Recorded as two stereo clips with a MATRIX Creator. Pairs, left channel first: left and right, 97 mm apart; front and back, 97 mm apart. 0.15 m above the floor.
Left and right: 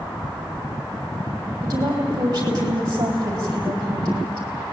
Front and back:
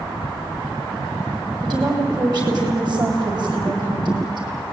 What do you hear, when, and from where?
1.6 s a woman speaking: 140° right, 6.5 m